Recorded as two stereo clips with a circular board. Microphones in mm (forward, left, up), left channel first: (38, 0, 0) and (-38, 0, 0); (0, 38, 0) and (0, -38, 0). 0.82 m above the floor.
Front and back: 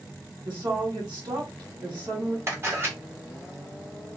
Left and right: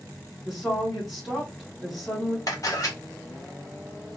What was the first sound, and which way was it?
A woman speaking, straight behind.